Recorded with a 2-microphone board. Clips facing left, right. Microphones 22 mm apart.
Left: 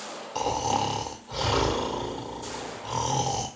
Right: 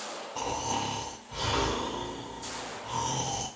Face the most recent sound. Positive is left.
turn(degrees=65)  # may be behind; listen again after turning